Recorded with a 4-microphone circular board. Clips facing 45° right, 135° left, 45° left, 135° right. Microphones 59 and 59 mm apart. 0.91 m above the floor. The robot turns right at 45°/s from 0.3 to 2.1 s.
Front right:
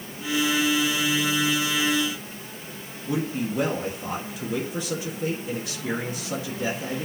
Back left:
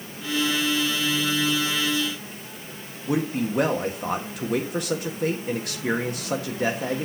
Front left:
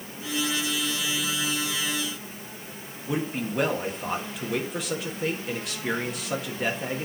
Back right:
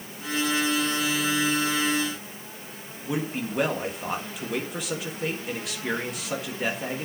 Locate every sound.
3.1 s a man speaking: 140° left, 1.6 m